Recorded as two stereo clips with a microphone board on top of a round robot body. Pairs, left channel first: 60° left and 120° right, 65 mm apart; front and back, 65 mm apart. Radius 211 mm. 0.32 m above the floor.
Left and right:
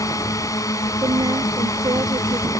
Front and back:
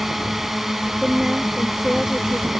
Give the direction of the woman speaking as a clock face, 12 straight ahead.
3 o'clock.